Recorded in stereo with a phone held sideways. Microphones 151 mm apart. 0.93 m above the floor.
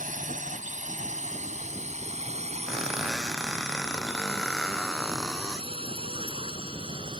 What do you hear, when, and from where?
0.0 s a drone: 60° right (ahead or behind); by 7.2 s 35° right (ahead or behind)
2.7 s a squeak: centre (ahead or behind)